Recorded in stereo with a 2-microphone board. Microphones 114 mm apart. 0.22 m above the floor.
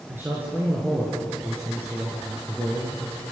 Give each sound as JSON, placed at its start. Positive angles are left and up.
{"t": 0.1, "sound": "a man speaking", "side_deg": -15, "distance_m": 3.0}